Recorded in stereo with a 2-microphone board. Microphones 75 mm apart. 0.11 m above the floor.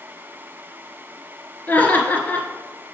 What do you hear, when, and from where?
1.7 s laughter: 25° left (ahead or behind), 1.6 m